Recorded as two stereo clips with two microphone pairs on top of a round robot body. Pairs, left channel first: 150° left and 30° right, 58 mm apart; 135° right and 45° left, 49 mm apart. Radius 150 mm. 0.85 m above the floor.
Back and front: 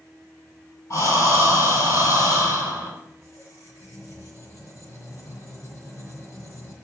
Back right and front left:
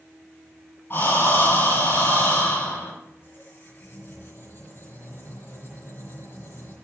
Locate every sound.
0.9 s breathing: straight behind, 6 m
3.0 s a squeak: 175° right, 4.5 m